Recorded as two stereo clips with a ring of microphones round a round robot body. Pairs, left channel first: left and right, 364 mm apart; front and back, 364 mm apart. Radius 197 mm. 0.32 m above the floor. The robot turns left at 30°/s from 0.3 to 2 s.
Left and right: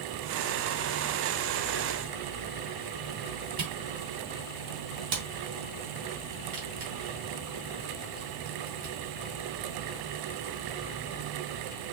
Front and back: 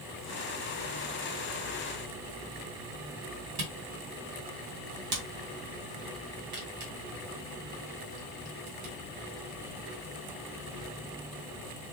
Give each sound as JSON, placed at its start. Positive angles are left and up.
{"t": 3.6, "sound": "a camera shutter", "azimuth_deg": -160, "distance_m": 2.5}